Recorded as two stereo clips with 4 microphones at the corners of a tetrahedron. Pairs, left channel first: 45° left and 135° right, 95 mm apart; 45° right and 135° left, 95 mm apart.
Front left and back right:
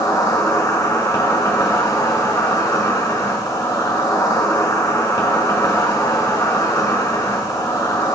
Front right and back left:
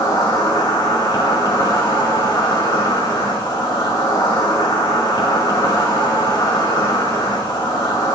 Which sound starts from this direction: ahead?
An insect, at 0.0 s.